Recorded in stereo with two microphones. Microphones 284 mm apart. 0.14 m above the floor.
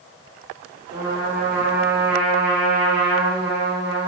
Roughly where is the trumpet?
Right.